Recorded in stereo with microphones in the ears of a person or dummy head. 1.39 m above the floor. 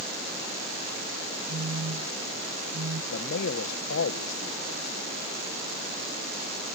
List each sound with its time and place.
1.5 s a phone buzzing: 65° right (ahead or behind)
3.1 s a man speaking: 60° left (ahead or behind)